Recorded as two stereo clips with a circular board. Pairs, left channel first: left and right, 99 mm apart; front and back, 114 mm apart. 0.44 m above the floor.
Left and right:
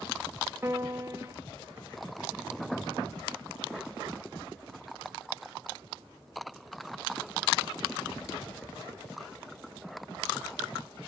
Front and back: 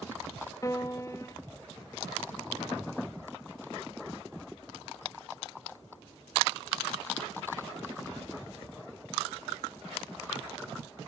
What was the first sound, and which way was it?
A piano, 35° right.